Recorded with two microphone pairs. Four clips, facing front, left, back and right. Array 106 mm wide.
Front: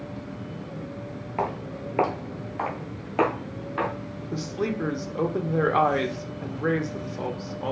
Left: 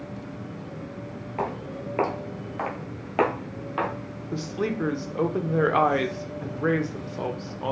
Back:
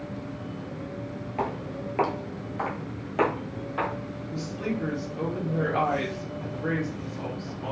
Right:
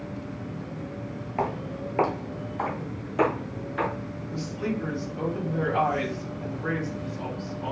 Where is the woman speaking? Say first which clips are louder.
Left 3 dB, front 3 dB; 50° left, 0.6 m.